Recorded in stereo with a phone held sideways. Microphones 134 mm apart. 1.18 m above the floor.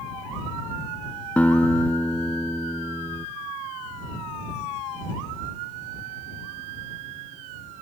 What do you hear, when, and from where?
1.4 s a guitar: 10° left (ahead or behind)